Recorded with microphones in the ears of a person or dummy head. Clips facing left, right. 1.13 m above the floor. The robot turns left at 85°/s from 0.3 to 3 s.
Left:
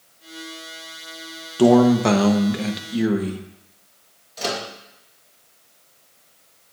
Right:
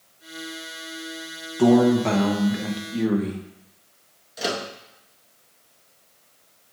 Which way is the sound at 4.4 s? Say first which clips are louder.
Even; 5° right (ahead or behind).